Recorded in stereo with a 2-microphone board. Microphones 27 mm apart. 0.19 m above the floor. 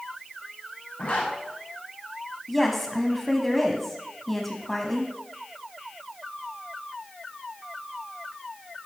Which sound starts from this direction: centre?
A woman speaking, at 2.5 s.